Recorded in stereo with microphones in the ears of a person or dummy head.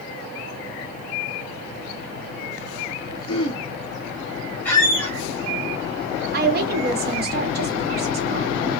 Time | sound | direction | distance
3.3 | throat clearing | 25° left (ahead or behind) | 0.7 m
4.7 | a squeak | 10° left (ahead or behind) | 1.2 m
6.3 | a woman speaking | 50° right (ahead or behind) | 0.8 m